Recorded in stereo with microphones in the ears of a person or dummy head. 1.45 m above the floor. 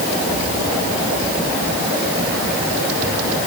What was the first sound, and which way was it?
Only background noise.